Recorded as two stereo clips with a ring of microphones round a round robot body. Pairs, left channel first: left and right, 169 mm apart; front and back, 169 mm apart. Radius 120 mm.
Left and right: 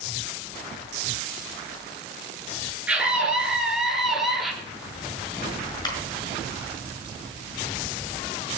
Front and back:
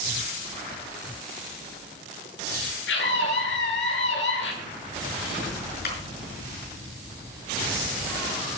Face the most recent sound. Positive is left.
turn(degrees=25)